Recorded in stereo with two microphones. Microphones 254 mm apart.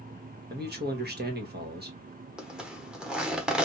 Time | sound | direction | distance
0.5 | a man speaking | 40° right (ahead or behind) | 1.4 m
2.4 | a zipper | 5° right (ahead or behind) | 1.1 m